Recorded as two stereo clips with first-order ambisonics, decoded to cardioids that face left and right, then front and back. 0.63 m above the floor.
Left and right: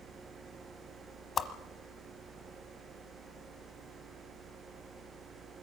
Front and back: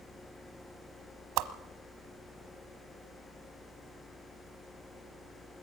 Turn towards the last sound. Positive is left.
turn(degrees=155)